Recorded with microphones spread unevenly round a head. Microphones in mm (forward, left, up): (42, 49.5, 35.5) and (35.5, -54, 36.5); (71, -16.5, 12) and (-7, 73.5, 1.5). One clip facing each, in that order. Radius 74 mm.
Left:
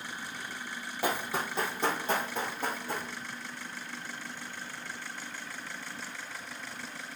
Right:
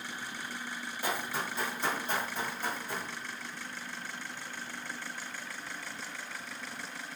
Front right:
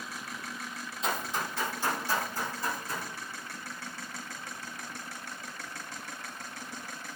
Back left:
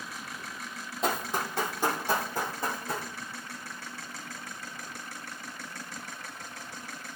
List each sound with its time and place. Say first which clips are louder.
1.0 s running footsteps: left 3 dB, back left 3 dB; 95° left, 2 m; by 3.1 s 100° left, 3.5 m